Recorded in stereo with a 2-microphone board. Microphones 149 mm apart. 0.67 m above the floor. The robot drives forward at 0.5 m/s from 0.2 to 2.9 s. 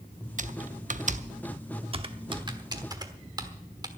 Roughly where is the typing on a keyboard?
Right.